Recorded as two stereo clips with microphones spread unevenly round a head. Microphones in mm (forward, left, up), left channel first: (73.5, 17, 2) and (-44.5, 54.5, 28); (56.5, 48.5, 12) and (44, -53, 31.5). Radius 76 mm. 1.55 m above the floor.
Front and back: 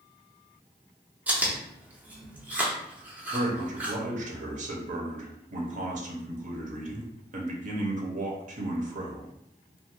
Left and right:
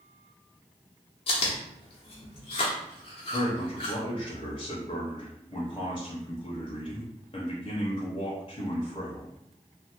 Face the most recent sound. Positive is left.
turn(degrees=145)